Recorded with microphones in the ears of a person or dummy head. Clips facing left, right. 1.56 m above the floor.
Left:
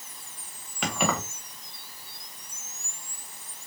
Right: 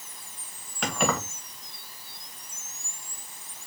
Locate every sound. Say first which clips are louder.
0.8 s keys jangling: right 1 dB; 5° left (ahead or behind), 0.9 m